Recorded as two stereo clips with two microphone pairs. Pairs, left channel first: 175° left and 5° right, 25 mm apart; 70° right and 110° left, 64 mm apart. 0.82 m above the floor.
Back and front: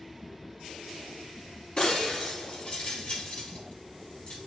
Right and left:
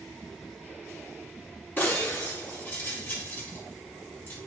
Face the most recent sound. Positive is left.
turn(degrees=-125)